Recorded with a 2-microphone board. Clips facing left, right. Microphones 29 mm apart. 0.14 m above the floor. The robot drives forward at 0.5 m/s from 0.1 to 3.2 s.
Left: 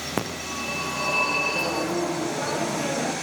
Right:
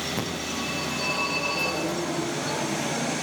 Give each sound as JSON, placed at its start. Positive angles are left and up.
{"t": 0.2, "sound": "a phone ringing", "side_deg": 60, "distance_m": 8.0}